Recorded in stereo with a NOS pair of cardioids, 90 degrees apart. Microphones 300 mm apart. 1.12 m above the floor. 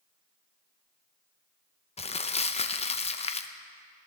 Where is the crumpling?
20° left, 0.7 m.